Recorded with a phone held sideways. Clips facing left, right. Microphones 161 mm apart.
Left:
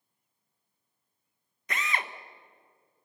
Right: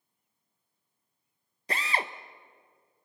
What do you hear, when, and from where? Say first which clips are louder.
1.7 s a drill: right 2 dB; 30° right (ahead or behind), 0.9 m